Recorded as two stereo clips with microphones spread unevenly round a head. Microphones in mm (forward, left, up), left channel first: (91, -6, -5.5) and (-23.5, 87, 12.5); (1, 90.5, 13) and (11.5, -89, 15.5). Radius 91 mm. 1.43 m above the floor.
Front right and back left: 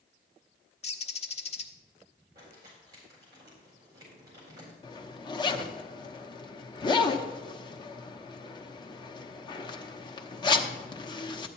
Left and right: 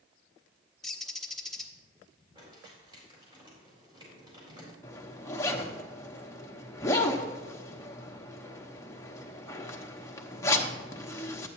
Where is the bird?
5° left, 1.0 m.